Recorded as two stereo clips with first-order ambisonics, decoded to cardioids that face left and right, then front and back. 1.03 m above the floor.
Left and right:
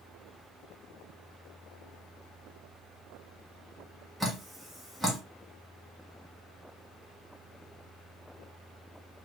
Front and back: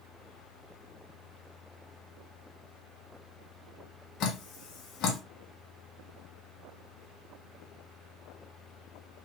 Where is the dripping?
10° right, 0.8 m.